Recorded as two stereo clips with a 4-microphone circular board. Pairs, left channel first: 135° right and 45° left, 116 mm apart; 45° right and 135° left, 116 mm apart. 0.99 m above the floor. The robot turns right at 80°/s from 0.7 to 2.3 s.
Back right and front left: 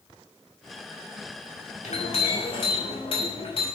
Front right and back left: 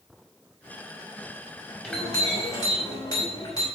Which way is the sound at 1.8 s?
130° right.